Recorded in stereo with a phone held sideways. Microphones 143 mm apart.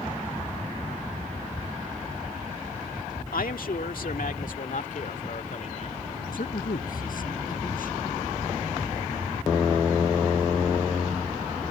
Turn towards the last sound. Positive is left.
turn(degrees=80)